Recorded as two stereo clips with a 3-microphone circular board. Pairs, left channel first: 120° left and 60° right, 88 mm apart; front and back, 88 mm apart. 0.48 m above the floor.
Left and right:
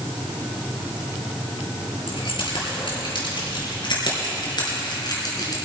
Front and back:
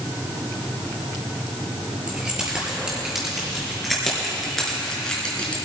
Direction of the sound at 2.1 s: 100° left.